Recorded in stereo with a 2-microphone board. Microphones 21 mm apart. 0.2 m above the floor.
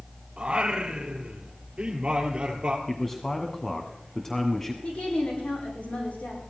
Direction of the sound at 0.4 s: 50° right (ahead or behind).